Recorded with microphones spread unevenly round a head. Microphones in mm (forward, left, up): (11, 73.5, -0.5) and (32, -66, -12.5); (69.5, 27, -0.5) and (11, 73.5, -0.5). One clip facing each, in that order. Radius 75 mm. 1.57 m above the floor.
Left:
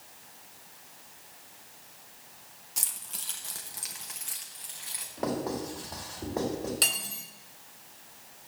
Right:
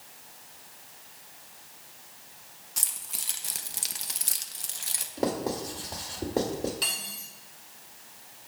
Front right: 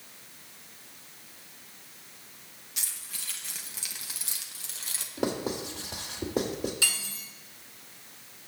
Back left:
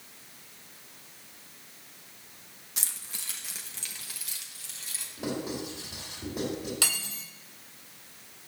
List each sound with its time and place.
2.8 s keys jangling: straight behind, 1.1 m; by 5.1 s 55° right, 1.3 m
5.2 s writing: 30° right, 2.5 m
6.8 s cutlery clinking: 130° left, 3 m